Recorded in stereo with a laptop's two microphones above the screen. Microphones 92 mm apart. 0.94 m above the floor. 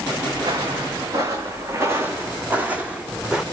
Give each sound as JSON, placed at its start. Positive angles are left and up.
{"t": 0.3, "sound": "footsteps", "side_deg": -45, "distance_m": 6.0}